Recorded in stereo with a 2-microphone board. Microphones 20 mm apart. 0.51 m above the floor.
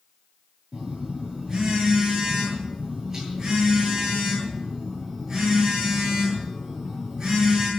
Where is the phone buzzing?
20° right (ahead or behind), 10 m.